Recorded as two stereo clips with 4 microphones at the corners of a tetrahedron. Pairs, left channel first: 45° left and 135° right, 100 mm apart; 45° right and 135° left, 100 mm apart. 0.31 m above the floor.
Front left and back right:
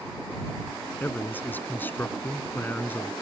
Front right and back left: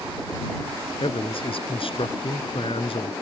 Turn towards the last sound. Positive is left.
turn(degrees=-25)